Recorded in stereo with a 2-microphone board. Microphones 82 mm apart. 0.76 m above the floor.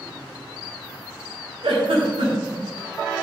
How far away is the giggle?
About 3 m.